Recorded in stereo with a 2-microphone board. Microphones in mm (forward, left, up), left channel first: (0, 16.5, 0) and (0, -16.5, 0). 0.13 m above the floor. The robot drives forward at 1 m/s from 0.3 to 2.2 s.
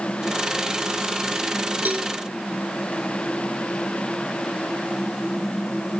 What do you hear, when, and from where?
1.9 s a cowbell: 60° right (ahead or behind), 2.5 m; by 2.1 s 65° right (ahead or behind), 2.5 m